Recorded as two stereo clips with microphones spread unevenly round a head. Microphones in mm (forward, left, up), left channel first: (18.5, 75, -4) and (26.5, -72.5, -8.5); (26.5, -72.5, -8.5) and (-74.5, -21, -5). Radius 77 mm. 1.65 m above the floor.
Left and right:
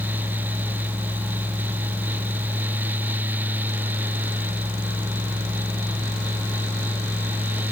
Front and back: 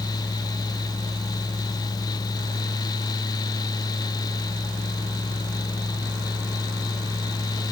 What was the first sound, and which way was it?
Only background noise.